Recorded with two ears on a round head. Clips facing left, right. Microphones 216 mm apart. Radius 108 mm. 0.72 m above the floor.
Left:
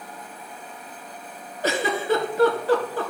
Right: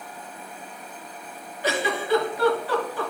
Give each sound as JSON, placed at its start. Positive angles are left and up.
{"t": 1.6, "sound": "a giggle", "side_deg": 40, "distance_m": 3.0}